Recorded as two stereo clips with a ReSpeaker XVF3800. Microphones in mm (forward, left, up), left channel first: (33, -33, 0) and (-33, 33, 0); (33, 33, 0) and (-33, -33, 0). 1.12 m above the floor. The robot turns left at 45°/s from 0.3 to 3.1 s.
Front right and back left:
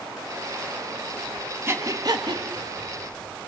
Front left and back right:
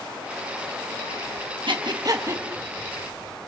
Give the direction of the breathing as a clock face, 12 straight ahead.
5 o'clock.